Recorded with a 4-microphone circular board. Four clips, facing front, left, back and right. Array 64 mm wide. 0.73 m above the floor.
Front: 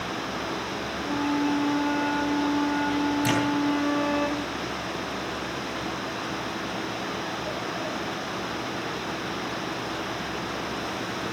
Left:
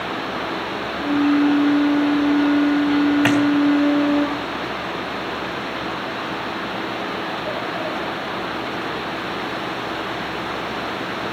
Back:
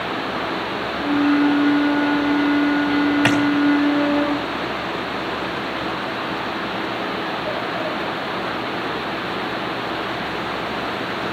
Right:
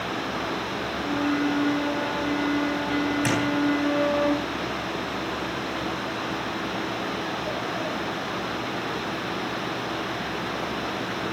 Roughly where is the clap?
Behind left.